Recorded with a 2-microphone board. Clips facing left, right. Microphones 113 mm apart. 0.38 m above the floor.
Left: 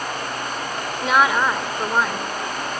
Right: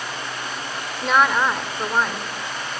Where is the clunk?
No clunk in this recording.